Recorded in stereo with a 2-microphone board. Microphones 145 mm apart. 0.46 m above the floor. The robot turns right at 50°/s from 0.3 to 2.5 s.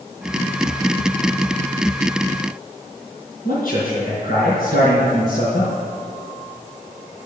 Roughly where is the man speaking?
Left.